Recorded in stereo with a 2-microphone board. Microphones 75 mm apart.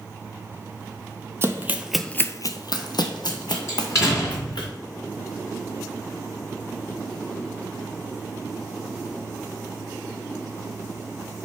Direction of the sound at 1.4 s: 35° right (ahead or behind).